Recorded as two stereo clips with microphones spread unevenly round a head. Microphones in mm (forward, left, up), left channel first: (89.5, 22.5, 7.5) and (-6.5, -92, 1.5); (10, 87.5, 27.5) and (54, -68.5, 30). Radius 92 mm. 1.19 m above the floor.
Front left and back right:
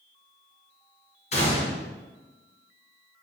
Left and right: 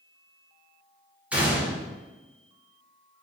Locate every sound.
1.3 s a gunshot: 10° left, 1.4 m